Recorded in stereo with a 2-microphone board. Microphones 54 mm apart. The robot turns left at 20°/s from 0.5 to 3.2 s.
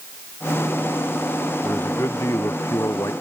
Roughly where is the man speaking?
Left.